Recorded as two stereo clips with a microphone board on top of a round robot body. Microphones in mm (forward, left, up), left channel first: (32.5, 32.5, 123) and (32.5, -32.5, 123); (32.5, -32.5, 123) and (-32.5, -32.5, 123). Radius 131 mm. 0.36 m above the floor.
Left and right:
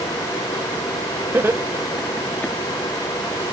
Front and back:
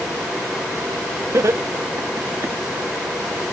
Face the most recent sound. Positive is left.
turn(degrees=135)